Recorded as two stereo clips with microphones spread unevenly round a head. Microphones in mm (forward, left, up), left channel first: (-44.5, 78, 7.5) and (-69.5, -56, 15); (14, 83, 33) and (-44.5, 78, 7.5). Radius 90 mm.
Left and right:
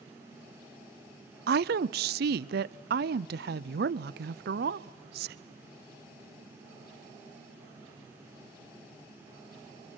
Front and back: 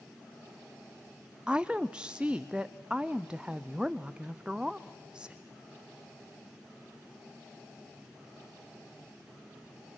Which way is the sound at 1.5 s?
85° right.